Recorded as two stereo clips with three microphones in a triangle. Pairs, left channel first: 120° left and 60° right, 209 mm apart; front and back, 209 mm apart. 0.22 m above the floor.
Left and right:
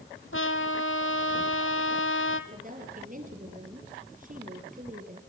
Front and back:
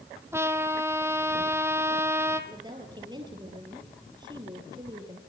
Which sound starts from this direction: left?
A trumpet, at 0.3 s.